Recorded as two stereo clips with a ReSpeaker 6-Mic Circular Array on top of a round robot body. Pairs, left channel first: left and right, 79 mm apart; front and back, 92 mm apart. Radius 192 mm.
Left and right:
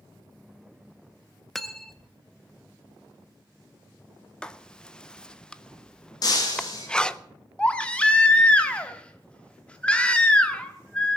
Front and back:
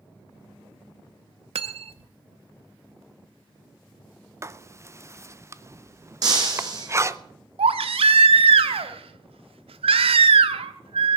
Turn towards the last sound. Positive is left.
turn(degrees=165)